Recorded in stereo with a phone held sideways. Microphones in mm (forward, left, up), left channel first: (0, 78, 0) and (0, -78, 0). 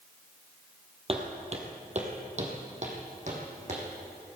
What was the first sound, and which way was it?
Footsteps, 40° right (ahead or behind).